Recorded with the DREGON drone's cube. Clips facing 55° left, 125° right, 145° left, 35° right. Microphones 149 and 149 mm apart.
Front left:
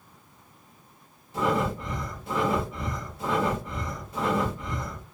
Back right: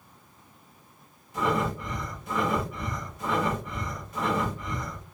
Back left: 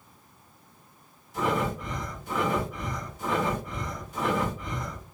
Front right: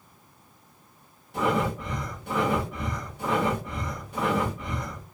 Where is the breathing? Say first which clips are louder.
Front left 1 dB, front right 2 dB; 5° right, 1.2 m.